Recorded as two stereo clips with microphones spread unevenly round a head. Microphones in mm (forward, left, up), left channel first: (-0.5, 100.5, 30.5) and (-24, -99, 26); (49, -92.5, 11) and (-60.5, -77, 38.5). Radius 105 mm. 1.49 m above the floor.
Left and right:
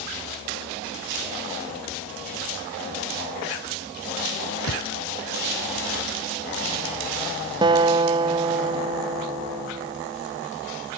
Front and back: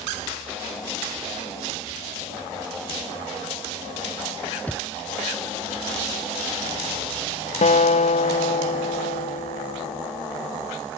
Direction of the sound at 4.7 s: 80° left.